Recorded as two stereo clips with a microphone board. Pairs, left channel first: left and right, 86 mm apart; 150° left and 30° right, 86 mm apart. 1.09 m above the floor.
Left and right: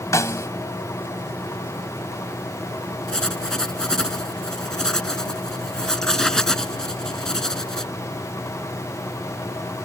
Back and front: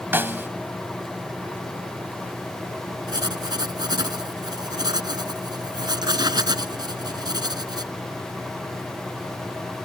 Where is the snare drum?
35° left.